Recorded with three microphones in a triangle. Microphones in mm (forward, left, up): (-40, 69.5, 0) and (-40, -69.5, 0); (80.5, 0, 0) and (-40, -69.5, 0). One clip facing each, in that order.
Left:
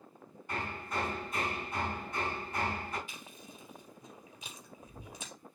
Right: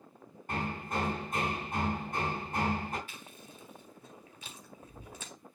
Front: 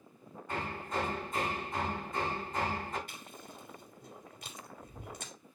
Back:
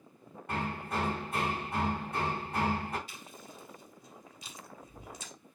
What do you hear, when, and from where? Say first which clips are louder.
0.5 s hammering: right 3 dB, back 2 dB; 135° right, 4 m
3.1 s chewing: even, even; 20° left, 2.5 m